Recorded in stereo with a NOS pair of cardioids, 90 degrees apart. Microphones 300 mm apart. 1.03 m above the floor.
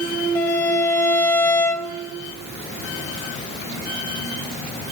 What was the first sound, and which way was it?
A violin, 10° left.